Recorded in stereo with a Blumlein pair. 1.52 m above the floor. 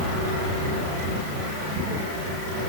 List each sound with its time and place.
Only background noise.